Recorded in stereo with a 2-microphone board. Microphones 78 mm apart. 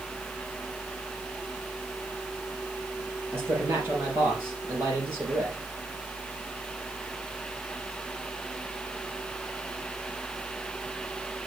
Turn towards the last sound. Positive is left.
turn(degrees=-30)  # may be behind; listen again after turning